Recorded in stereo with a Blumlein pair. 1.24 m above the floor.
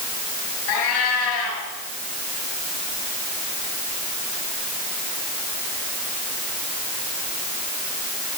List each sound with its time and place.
0.7 s a cat meowing: 55° left, 4.5 m